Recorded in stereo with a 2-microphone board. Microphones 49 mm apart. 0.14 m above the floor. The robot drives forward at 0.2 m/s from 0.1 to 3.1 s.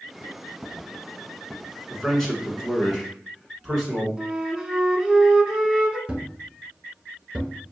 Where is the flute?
10° right (ahead or behind), 0.9 m.